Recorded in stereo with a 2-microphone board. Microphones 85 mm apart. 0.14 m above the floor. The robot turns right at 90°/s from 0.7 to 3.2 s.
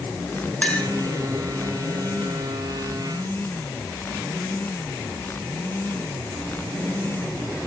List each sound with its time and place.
0.6 s a clink: 15° left (ahead or behind), 1.0 m; by 0.9 s 20° left (ahead or behind), 1.0 m